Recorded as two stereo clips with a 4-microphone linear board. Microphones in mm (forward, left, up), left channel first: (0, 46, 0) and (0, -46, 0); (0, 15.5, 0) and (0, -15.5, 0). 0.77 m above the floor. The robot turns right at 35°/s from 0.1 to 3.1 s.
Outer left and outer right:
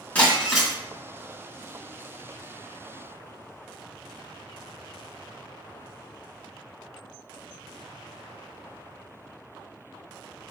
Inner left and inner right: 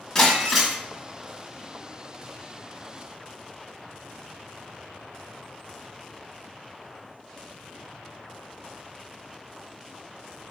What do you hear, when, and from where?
0.1 s breaking glass: 15° left (ahead or behind), 1.9 m; by 0.8 s 5° right (ahead or behind), 1.9 m